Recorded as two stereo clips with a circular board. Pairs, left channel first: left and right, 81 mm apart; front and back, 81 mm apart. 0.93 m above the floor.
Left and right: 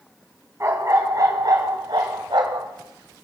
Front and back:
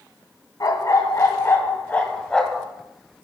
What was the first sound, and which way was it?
A dog barking, 40° right.